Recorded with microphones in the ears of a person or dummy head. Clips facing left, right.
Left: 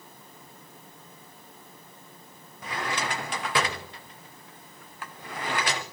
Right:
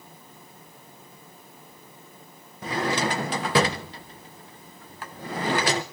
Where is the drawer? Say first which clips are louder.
Right 6 dB; 35° right (ahead or behind), 0.7 m.